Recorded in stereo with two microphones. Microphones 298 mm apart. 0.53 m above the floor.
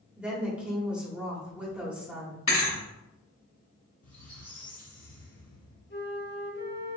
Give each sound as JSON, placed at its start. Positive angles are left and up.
{"t": 0.2, "sound": "a woman speaking", "side_deg": -5, "distance_m": 1.3}
{"t": 2.5, "sound": "a thud", "side_deg": 65, "distance_m": 1.3}
{"t": 4.0, "sound": "a squeak", "side_deg": 70, "distance_m": 1.9}
{"t": 5.9, "sound": "a flute", "side_deg": 40, "distance_m": 0.9}